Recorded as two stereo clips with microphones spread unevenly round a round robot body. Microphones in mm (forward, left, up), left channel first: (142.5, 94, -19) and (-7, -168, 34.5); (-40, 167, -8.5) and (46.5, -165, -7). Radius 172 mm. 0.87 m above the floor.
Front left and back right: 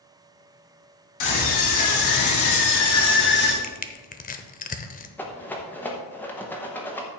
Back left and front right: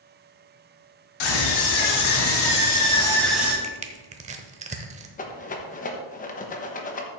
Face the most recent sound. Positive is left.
turn(degrees=105)